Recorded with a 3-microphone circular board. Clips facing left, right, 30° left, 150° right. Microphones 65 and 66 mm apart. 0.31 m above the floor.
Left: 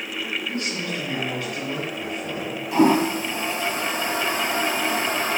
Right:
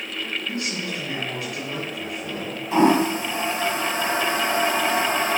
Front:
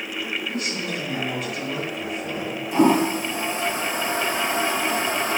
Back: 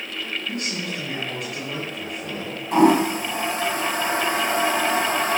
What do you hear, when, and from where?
0.5 s a man speaking: 160° right, 5 m
2.7 s a toilet flushing: 145° right, 2.5 m